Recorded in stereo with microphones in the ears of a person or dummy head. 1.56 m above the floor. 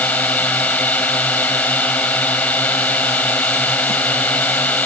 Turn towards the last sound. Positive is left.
turn(degrees=15)  # may be behind; listen again after turning